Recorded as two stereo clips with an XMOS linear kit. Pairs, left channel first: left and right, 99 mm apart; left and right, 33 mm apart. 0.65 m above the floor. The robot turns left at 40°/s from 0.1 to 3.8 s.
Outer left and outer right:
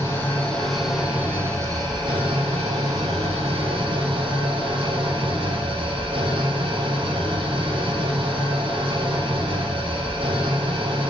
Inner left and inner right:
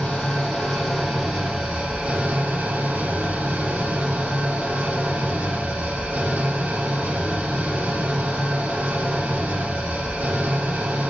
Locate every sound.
0.0 s an engine running: 30° left, 5.5 m; by 11.1 s 120° right, 5.5 m